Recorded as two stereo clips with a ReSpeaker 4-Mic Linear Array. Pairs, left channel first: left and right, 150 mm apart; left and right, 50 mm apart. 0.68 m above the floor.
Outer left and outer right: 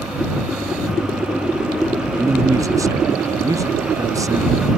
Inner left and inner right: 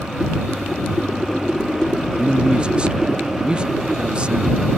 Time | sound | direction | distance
2.2 | a man speaking | 20° right (ahead or behind) | ?